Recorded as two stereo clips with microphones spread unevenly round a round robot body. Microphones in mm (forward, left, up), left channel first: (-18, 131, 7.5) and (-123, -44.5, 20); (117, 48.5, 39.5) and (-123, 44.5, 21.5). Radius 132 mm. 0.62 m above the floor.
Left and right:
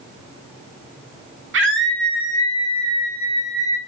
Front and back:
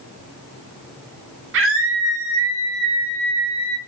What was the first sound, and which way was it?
A scream, 145° right.